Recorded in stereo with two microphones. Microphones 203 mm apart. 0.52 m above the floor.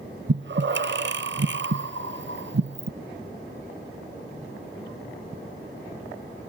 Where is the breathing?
65° right (ahead or behind), 0.7 m.